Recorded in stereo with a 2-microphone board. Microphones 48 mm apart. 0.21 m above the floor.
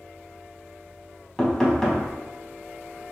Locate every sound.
1.4 s knocking: 10° left (ahead or behind), 0.8 m